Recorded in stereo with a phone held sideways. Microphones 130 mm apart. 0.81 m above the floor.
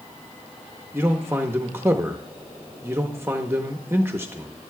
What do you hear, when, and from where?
0.9 s a man speaking: 20° right (ahead or behind), 0.7 m